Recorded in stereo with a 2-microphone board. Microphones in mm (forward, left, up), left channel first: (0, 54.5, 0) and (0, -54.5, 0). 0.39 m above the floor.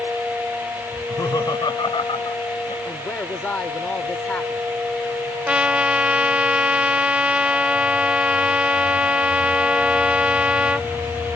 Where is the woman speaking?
15° left (ahead or behind).